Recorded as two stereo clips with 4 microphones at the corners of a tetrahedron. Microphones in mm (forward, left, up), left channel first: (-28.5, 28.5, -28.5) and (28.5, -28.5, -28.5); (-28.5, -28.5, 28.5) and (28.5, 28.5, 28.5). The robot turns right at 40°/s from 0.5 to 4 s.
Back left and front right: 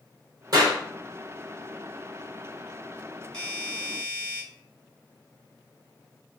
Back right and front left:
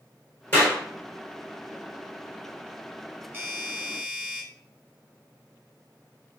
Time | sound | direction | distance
0.5 | a clap | 70° right | 2.5 m
3.3 | a doorbell | 60° left | 2 m